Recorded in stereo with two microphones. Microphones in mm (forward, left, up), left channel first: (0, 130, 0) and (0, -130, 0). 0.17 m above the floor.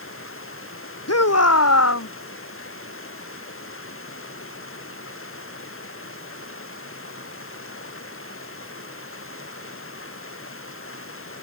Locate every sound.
0.0 s running water: 55° left (ahead or behind)
1.1 s a shout: 70° left (ahead or behind)